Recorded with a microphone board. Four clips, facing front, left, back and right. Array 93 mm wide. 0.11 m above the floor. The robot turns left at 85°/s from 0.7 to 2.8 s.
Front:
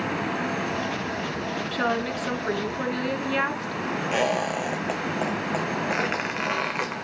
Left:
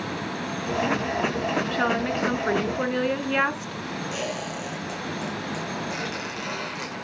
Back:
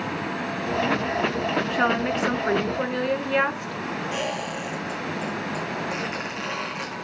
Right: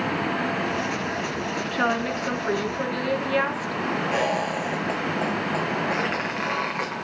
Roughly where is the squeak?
Ahead right.